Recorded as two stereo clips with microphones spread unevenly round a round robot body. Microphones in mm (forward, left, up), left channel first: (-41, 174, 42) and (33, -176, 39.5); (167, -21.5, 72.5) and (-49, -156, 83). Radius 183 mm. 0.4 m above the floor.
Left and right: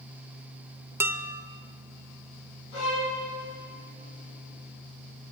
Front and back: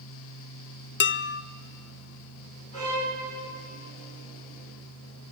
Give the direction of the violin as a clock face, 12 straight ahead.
9 o'clock.